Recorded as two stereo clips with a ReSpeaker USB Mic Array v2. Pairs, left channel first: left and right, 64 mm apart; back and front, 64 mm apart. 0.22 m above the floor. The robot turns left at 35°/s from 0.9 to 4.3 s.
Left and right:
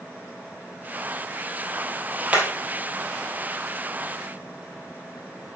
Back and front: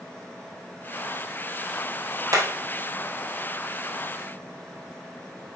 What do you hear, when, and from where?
2.3 s hammering: 20° right, 1.9 m; by 2.5 s 25° right, 1.9 m